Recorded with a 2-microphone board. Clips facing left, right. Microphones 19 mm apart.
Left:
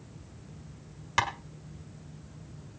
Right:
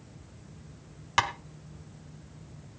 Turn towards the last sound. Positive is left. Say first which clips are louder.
# right 2 dB
turn(degrees=-15)  # may be behind; listen again after turning